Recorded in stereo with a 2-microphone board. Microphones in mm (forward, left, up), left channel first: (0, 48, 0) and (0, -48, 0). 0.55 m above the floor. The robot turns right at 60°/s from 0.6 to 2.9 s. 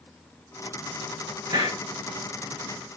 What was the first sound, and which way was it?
A hiss, 40° right (ahead or behind).